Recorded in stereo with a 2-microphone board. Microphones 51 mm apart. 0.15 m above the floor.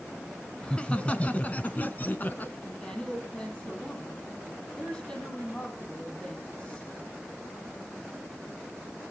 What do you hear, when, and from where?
0.6 s laughter: 20° left (ahead or behind), 1.1 m; by 2.5 s 35° left (ahead or behind), 1.3 m
2.6 s a woman speaking: 20° left (ahead or behind), 5 m